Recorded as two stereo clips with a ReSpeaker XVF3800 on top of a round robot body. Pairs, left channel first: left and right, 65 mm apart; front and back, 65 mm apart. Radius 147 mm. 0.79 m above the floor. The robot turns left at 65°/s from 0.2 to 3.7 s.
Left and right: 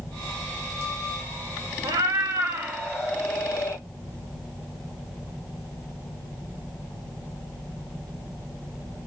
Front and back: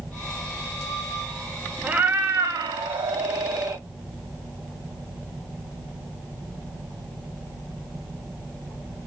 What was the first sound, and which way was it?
A cat meowing, 105° right.